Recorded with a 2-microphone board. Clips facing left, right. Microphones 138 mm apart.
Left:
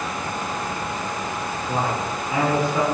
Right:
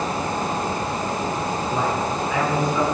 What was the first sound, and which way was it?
A man speaking, 30° left (ahead or behind).